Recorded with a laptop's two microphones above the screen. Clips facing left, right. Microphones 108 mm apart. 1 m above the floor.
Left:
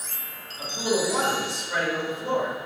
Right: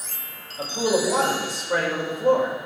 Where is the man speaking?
40° right (ahead or behind), 4 m.